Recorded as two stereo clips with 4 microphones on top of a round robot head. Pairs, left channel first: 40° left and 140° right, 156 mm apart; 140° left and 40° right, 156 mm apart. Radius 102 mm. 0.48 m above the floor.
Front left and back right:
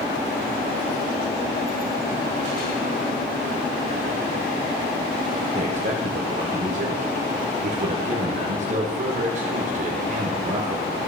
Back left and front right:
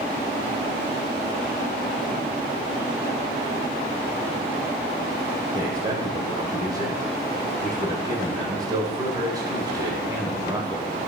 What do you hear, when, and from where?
5.5 s a man speaking: 105° right, 1.8 m